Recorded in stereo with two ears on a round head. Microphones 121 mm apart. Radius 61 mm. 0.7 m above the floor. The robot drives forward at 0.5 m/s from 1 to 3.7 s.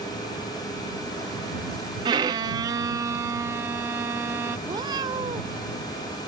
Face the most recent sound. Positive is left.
turn(degrees=-30)  # may be behind; listen again after turning